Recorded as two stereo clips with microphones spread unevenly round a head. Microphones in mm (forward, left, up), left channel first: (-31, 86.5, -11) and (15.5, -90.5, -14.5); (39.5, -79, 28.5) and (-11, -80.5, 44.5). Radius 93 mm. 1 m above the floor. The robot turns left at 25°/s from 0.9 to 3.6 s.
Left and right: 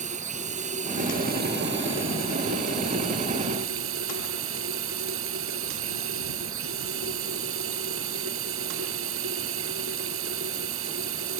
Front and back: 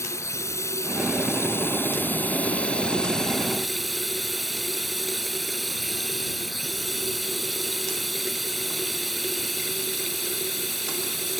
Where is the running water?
20° right; by 11.4 s 90° right.